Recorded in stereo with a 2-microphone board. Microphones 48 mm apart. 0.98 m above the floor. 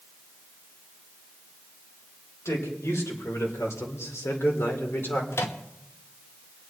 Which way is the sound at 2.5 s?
80° left.